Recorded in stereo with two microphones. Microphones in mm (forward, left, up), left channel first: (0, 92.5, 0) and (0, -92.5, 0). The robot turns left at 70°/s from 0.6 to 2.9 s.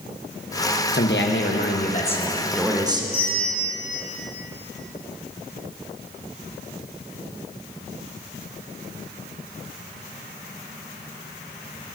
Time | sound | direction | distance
0.9 | a man speaking | 115° left | 1.0 m
3.1 | a bell | 30° left (ahead or behind) | 1.9 m